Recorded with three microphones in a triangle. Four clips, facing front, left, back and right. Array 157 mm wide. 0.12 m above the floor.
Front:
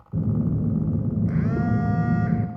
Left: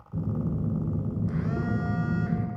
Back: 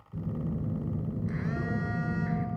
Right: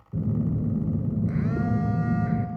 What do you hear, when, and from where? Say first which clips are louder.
0.1 s a phone buzzing: right 3 dB, front 9 dB; 20° right, 0.7 m